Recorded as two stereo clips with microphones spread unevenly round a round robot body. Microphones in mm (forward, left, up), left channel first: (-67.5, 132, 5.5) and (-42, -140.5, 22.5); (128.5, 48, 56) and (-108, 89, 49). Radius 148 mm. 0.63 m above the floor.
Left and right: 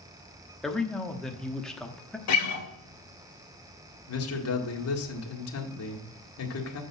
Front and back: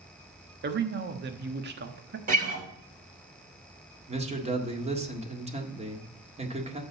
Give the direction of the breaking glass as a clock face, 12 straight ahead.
I don't hear breaking glass.